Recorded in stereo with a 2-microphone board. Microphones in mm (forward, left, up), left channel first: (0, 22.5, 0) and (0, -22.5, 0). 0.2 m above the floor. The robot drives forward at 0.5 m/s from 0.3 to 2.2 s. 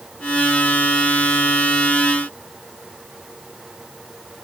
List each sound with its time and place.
Only background noise.